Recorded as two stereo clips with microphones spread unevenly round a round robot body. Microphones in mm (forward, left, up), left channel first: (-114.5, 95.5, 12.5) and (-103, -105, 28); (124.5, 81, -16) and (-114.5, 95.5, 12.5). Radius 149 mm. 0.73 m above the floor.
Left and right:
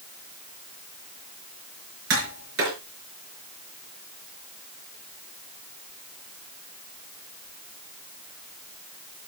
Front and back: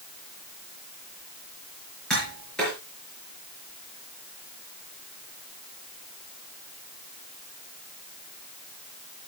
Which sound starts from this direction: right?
Tapping, at 2.1 s.